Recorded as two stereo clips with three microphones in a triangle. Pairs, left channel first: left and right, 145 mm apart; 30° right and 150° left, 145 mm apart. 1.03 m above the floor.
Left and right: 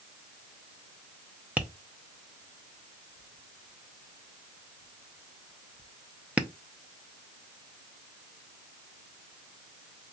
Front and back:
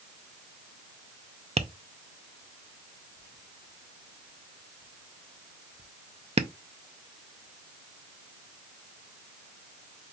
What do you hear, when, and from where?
1.6 s tapping: 170° right, 0.5 m